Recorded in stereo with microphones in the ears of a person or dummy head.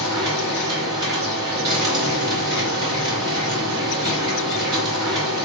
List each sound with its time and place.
0.0 s a machine running: 25° right (ahead or behind), 1.5 m